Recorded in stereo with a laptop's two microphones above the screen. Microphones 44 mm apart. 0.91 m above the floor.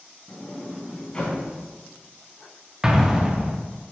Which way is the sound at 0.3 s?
20° left (ahead or behind).